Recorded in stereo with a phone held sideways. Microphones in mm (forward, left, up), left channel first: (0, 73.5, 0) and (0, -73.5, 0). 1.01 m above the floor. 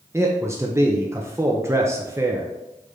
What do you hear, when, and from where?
0.1 s a man speaking: 20° right (ahead or behind), 0.7 m